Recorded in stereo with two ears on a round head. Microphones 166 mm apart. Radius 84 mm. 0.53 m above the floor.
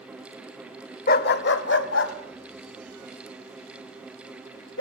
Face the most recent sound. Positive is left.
turn(degrees=90)